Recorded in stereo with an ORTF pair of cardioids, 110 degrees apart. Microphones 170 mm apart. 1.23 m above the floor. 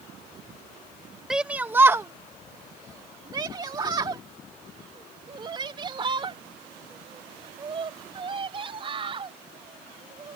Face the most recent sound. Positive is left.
turn(degrees=-35)